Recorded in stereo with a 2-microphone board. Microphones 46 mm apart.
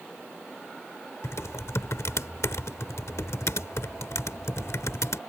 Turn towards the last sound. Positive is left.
turn(degrees=75)  # may be behind; listen again after turning